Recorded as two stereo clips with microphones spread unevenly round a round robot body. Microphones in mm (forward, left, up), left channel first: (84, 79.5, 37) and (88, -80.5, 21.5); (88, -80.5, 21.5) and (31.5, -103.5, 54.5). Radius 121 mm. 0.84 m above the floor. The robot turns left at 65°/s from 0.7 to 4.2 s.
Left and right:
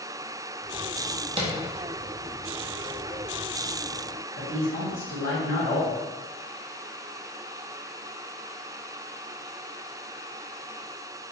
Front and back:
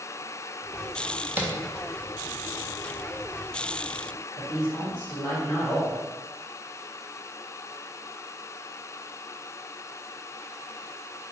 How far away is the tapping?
About 0.7 m.